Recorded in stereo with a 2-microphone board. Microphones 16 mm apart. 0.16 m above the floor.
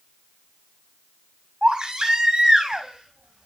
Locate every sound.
1.6 s a baby crying: 70° right (ahead or behind), 6.5 m